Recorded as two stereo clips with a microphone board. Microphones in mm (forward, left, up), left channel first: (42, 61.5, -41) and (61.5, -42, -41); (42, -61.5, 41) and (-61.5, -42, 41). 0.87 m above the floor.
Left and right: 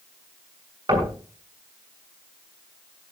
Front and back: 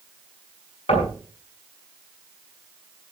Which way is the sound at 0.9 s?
35° right.